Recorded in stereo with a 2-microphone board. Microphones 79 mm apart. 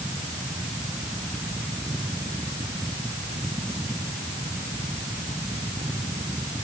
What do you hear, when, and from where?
Only background noise.